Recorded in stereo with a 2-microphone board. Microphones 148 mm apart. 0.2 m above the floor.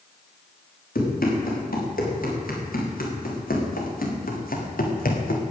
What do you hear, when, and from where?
0.9 s running footsteps: 80° left, 6.5 m; by 5.4 s 85° left, 3 m